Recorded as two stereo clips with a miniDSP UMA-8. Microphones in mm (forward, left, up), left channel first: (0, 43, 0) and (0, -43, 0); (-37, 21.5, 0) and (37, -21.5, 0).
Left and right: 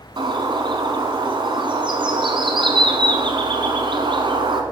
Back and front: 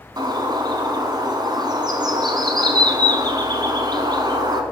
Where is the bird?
65° right, 1.0 m.